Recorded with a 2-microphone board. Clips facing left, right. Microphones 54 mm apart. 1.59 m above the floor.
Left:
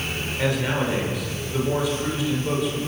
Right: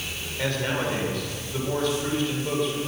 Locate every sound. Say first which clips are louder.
0.4 s a man speaking: left 2 dB; 5° left (ahead or behind), 6.5 m